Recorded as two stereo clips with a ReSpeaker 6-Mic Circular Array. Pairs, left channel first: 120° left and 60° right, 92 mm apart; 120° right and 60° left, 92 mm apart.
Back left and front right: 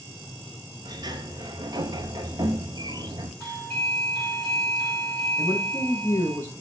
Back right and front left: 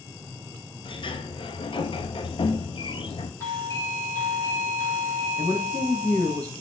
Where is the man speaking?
170° left, 2 m.